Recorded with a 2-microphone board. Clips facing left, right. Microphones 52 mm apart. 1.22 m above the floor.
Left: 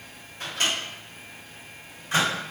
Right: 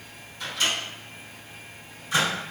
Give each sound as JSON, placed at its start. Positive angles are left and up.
{"t": 0.4, "sound": "a microwave", "side_deg": 50, "distance_m": 1.9}